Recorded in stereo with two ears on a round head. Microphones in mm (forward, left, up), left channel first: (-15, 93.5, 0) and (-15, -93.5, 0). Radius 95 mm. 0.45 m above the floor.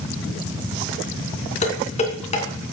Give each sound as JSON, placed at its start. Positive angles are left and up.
{"t": 1.6, "sound": "dishes clattering", "side_deg": 35, "distance_m": 3.0}